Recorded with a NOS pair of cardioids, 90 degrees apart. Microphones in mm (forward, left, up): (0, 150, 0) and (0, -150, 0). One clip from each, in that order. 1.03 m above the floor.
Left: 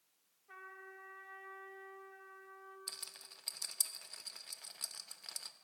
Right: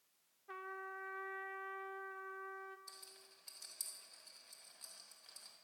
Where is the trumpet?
40° right, 0.6 m.